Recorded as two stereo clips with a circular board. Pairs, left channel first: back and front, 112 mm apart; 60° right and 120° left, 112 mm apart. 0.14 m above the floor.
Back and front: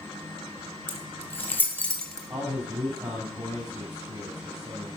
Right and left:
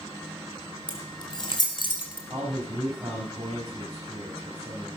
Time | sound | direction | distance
0.9 | keys jangling | 115° right | 3.5 m
2.3 | a man speaking | 55° left | 9 m